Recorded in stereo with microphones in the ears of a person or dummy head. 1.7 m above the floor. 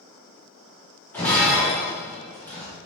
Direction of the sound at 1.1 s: 15° left (ahead or behind).